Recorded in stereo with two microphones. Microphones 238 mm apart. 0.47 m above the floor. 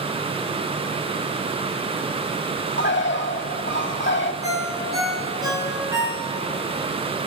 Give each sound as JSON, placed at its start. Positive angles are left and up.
{"t": 2.8, "sound": "a bird", "side_deg": 50, "distance_m": 0.7}
{"t": 4.4, "sound": "a ringtone", "side_deg": -15, "distance_m": 4.5}